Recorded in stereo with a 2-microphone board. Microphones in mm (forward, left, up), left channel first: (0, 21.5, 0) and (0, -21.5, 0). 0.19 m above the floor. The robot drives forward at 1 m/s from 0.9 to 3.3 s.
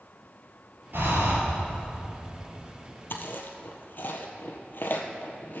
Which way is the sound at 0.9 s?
55° right (ahead or behind).